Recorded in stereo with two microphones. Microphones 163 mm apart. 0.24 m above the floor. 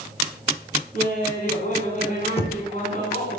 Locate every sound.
0.9 s laughter: 55° left (ahead or behind), 3 m
2.4 s knocking: 35° left (ahead or behind), 1.0 m